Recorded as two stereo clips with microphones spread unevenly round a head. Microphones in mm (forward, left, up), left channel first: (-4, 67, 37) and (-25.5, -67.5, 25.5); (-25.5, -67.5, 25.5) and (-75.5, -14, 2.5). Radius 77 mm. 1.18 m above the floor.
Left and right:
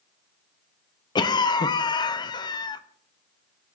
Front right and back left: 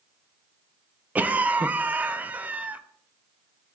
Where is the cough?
130° left, 0.5 m.